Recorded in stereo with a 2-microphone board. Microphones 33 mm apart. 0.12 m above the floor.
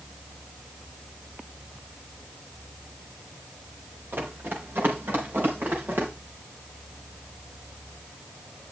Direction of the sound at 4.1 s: 90° right.